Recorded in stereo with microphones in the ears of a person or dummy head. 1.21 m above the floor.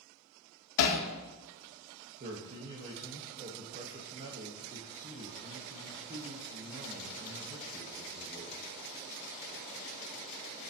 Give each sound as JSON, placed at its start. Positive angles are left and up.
{"t": 0.8, "sound": "hammering", "side_deg": 65, "distance_m": 1.7}
{"t": 2.2, "sound": "a man speaking", "side_deg": -40, "distance_m": 1.3}